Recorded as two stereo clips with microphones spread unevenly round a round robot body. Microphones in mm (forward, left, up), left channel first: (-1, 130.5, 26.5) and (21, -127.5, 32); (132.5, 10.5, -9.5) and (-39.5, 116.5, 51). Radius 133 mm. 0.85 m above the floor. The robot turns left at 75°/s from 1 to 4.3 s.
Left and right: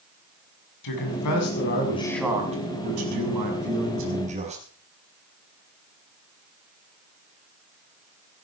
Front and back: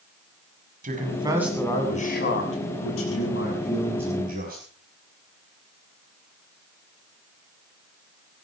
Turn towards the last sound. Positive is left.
turn(degrees=-150)